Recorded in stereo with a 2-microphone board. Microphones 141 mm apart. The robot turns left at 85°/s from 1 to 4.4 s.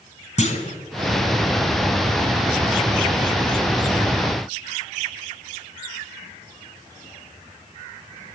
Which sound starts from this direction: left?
A clunk, at 0.4 s.